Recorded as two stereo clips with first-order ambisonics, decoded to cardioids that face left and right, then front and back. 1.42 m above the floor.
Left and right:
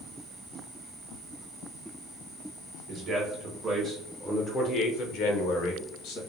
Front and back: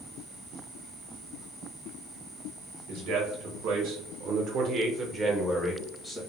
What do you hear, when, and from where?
2.9 s a man speaking: 150° right, 1.1 m; by 6.2 s 70° left, 1.0 m